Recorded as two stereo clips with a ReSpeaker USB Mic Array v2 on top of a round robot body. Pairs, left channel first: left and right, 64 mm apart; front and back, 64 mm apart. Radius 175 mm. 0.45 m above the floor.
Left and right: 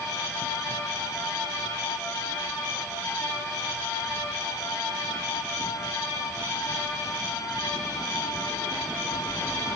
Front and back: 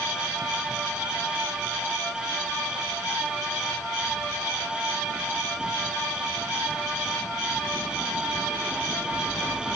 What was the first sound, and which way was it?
Only background noise.